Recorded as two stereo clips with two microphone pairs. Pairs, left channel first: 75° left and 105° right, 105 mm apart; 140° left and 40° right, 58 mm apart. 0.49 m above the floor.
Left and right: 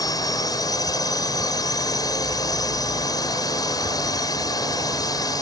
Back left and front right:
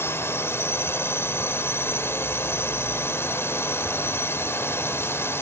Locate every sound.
0.0 s a drone: 115° left